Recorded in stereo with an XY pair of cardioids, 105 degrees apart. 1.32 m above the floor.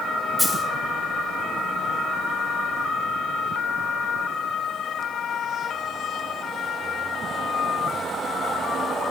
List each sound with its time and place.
0.4 s a dropped coin: 5° left, 2.5 m